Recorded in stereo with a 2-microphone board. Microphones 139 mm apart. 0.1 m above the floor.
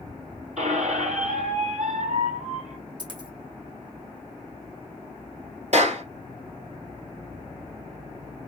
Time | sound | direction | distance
0.6 | a squeak | 65° right (ahead or behind) | 1.6 m
3.0 | a dropped coin | 35° right (ahead or behind) | 2.5 m
5.7 | a clap | 55° right (ahead or behind) | 1.8 m